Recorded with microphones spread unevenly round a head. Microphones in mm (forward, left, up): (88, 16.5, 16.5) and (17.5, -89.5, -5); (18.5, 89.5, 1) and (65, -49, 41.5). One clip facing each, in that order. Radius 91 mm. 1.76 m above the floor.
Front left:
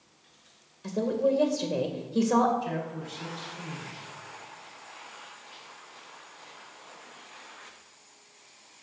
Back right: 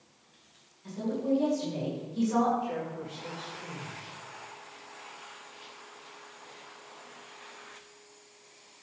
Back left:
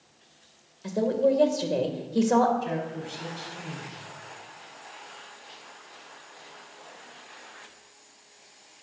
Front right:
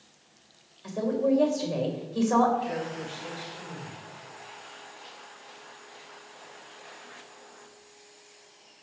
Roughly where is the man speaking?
Left.